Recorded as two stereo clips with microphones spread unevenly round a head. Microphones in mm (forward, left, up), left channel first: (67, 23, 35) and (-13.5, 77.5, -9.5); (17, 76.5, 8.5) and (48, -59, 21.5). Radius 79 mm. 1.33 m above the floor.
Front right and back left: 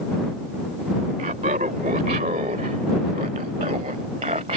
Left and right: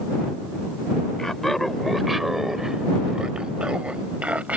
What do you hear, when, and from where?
1.2 s laughter: 170° right; by 4.6 s 160° right